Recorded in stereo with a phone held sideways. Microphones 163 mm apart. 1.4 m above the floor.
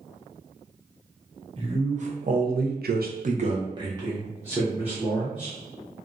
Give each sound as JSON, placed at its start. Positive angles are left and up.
{"t": 1.6, "sound": "a man speaking", "side_deg": -40, "distance_m": 0.9}